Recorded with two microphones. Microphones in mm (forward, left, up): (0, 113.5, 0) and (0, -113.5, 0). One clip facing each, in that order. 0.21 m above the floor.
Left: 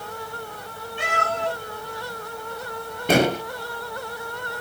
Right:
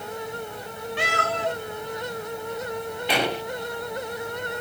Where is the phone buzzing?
No phone buzzing in this recording.